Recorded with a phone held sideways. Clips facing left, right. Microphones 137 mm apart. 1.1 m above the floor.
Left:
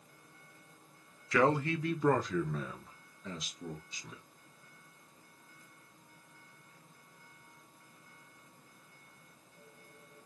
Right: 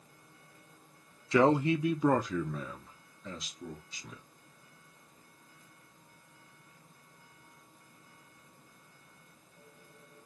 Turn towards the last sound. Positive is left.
turn(degrees=5)  # may be behind; listen again after turning